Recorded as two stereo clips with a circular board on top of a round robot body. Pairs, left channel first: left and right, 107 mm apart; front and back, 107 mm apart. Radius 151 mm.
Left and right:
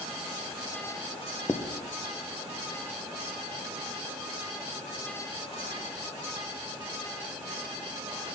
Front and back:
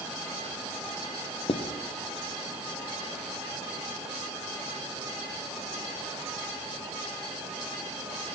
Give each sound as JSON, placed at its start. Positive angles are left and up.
{"t": 1.5, "sound": "writing", "azimuth_deg": 25, "distance_m": 0.9}